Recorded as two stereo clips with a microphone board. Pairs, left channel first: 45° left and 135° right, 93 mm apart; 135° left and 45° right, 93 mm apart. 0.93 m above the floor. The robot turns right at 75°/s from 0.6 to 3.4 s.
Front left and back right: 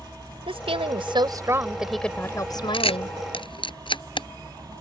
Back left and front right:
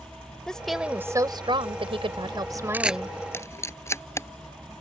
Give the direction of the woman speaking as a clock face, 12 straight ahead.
5 o'clock.